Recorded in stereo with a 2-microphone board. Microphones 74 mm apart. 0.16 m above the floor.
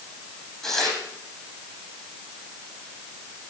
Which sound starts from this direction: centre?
Tearing paper, at 0.6 s.